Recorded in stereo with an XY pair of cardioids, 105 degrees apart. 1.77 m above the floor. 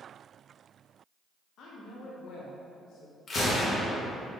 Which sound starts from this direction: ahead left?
A gunshot, at 3.3 s.